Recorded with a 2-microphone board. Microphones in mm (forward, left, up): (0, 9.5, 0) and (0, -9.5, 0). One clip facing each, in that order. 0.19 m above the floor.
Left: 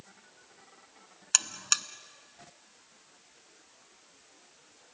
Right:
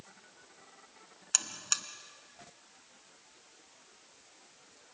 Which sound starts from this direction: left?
A buzzer, at 1.3 s.